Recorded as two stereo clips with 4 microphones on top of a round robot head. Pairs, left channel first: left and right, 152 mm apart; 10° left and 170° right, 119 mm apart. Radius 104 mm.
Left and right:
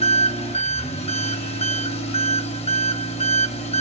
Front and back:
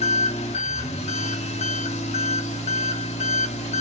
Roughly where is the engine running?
Ahead left.